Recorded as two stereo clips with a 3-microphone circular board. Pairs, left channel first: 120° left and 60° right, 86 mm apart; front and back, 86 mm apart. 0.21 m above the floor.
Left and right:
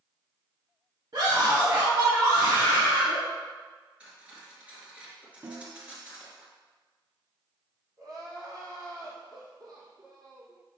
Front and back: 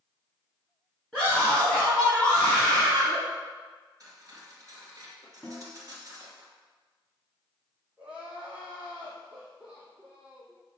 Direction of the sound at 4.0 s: 135° right.